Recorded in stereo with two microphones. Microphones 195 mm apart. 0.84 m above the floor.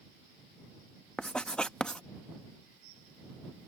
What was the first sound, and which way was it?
Writing, 5° left (ahead or behind).